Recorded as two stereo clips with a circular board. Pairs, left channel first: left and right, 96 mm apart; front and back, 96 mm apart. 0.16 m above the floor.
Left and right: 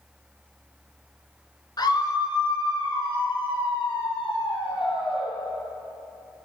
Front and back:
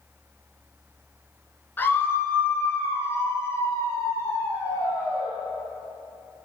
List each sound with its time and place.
1.8 s a scream: 65° left, 2 m